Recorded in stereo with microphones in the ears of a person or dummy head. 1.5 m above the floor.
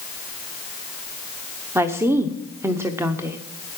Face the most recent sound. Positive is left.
turn(degrees=-5)  # may be behind; listen again after turning